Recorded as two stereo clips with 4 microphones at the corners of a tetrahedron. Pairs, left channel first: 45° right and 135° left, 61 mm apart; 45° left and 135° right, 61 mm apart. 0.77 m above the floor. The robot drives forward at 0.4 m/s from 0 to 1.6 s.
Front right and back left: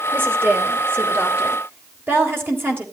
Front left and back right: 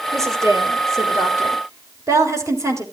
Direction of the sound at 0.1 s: 170° right.